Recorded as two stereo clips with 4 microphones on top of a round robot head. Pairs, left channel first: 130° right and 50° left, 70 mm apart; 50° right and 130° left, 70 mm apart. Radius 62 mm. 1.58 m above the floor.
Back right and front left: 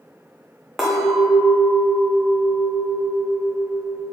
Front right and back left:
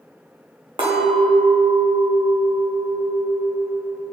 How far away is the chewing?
I don't hear chewing.